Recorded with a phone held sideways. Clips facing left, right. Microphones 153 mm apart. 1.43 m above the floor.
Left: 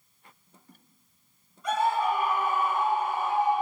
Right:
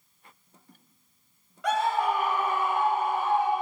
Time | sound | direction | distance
1.6 | a scream | 80° right | 1.4 m